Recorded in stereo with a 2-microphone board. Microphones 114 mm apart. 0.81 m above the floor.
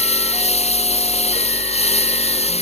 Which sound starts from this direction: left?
A lawn mower, at 0.0 s.